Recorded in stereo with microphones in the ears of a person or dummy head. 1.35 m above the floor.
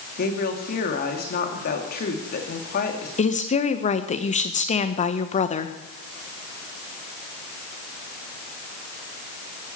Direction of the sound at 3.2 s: 30° left (ahead or behind).